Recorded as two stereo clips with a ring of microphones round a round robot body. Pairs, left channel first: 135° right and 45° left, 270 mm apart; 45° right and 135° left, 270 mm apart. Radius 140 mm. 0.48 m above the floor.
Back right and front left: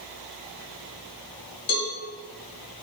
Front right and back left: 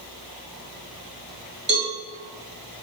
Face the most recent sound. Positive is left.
turn(degrees=-155)